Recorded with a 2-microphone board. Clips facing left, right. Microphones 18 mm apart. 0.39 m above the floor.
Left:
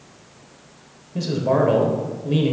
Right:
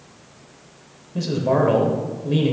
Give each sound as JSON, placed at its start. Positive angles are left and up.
{"t": 1.1, "sound": "a man speaking", "side_deg": 0, "distance_m": 1.2}